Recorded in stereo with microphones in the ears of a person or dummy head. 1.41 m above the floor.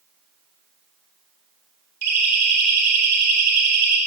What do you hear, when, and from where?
2.0 s a siren: 50° right (ahead or behind), 5 m; by 4.0 s 65° right (ahead or behind), 4.5 m